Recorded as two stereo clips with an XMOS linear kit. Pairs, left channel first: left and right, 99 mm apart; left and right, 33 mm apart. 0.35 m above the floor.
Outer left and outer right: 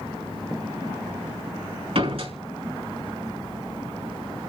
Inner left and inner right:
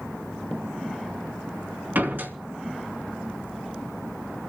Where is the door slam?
80° right, 3 m.